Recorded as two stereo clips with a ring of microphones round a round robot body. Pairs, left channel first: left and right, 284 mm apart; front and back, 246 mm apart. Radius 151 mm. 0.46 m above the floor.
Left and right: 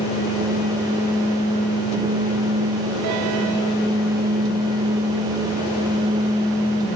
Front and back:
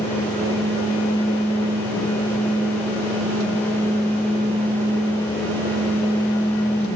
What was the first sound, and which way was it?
Only background noise.